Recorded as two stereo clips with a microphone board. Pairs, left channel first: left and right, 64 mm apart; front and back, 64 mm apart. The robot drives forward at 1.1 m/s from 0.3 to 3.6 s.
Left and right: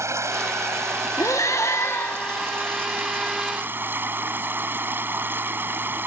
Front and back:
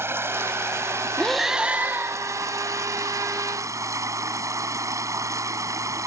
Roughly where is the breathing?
Left.